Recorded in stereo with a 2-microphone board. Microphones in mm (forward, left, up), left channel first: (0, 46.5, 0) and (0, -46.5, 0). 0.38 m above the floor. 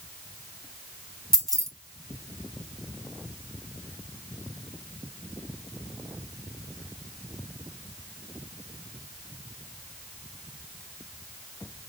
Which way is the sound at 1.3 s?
5° left (ahead or behind).